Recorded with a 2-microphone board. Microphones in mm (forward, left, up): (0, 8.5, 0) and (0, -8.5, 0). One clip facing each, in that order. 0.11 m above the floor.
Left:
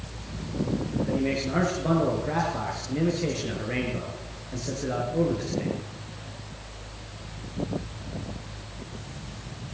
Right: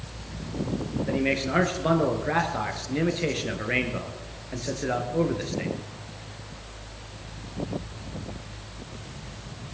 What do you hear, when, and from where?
1.1 s a man speaking: 35° right (ahead or behind), 2 m